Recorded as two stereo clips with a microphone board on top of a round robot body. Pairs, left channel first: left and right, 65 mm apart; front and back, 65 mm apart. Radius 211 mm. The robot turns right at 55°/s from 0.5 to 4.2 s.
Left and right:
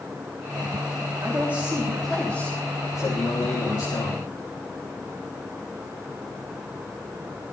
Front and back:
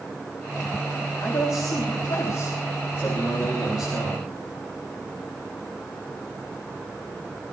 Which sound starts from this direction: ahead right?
A man speaking, at 1.2 s.